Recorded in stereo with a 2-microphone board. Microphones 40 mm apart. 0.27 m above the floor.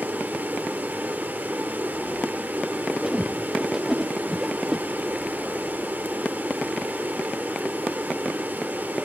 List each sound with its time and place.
0.0 s running water: 50° right (ahead or behind), 2.5 m
3.0 s a whoosh: 15° right (ahead or behind), 0.9 m